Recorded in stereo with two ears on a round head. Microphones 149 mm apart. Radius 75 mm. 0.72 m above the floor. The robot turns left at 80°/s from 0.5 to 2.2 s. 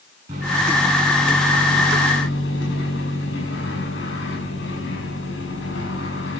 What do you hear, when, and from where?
0.3 s a microwave: 130° right, 7 m; by 6.4 s 95° left, 7 m